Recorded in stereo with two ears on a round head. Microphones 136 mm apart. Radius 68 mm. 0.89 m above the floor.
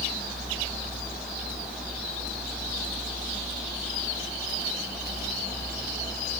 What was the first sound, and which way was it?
Only background noise.